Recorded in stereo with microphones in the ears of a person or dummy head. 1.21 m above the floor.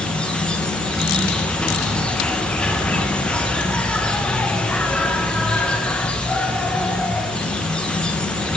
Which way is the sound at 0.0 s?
5° left (ahead or behind).